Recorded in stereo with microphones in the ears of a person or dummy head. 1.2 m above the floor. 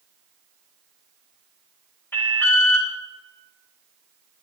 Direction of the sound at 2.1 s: 15° left (ahead or behind).